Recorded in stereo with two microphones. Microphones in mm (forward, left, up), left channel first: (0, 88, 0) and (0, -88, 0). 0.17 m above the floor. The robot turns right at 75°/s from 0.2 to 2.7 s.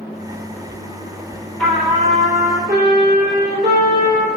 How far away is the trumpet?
About 3.5 m.